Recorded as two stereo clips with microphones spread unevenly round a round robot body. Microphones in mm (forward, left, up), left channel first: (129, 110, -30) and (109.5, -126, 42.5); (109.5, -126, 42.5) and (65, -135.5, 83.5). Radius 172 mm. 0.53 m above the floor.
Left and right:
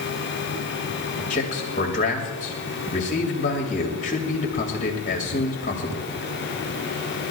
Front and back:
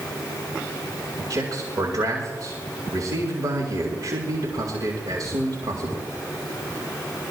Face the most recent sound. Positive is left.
turn(degrees=140)